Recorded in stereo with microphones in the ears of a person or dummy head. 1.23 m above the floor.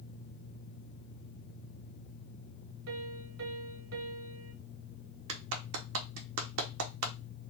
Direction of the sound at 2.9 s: 70° right (ahead or behind).